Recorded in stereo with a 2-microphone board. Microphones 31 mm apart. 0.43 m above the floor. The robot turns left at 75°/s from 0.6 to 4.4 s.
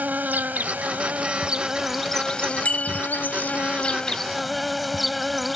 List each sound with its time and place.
0.0 s an insect: 75° right; by 5.6 s straight ahead
2.6 s a bicycle bell: 55° left (ahead or behind); by 3.0 s 25° left (ahead or behind)